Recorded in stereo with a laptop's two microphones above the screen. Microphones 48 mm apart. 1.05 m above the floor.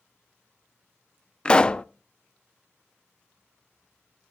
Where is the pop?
20° left (ahead or behind), 0.5 m.